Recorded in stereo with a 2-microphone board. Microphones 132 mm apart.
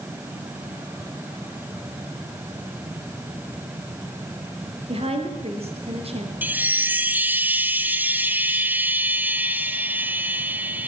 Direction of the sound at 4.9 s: 50° right (ahead or behind).